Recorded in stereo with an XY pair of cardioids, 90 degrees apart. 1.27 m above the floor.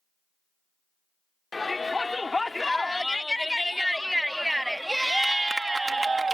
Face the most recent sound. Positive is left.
turn(degrees=-35)